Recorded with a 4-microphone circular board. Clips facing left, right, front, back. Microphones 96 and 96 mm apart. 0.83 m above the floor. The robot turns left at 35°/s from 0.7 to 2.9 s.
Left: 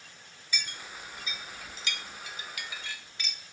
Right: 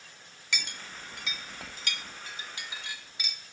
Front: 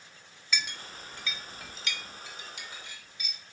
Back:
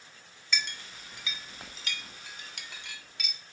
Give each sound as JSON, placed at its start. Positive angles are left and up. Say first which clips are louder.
{"t": 0.5, "sound": "a clink", "louder": "right 2 dB, even", "azimuth_deg": -85, "distance_m": 0.7}